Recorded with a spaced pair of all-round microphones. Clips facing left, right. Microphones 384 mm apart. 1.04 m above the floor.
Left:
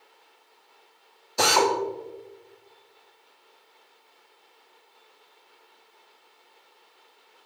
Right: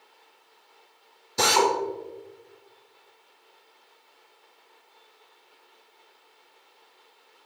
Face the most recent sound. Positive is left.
turn(degrees=-30)  # may be behind; listen again after turning